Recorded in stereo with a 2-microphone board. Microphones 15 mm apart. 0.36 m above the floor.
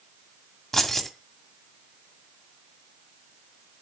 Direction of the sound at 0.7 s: 25° left (ahead or behind).